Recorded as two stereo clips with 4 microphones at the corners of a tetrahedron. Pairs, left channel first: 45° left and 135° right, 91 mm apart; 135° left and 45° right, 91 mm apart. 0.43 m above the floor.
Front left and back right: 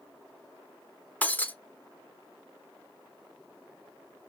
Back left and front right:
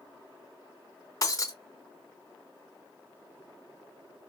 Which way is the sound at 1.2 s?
110° left.